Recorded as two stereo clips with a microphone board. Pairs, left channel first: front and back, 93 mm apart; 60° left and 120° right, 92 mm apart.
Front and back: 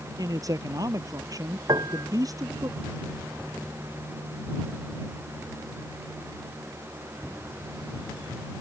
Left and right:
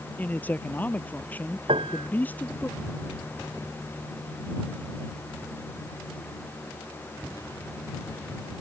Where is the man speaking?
130° left.